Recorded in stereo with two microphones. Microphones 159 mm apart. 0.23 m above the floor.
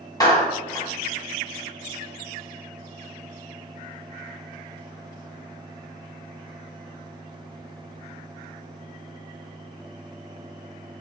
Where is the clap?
25° left (ahead or behind), 1.1 m.